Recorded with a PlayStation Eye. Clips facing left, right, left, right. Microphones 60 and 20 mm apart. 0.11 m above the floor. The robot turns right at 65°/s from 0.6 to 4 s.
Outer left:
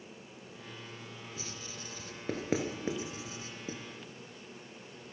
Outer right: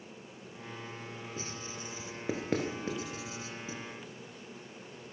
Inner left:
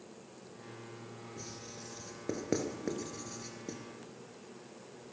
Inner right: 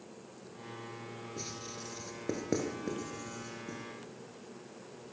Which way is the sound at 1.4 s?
40° right (ahead or behind).